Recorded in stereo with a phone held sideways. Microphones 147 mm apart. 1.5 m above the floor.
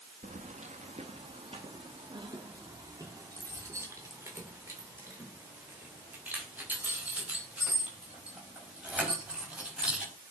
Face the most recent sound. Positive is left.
turn(degrees=-5)  # may be behind; listen again after turning